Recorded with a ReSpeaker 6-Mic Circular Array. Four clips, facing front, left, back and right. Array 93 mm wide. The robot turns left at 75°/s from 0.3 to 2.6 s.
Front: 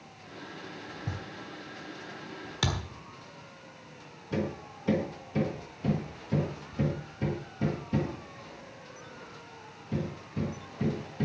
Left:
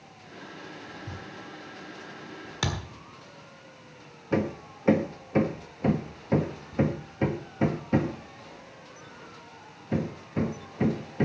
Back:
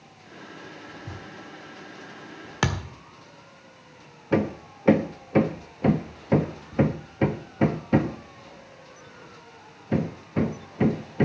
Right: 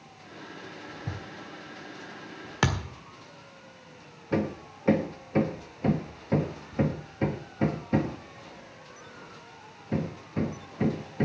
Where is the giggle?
No giggle in this recording.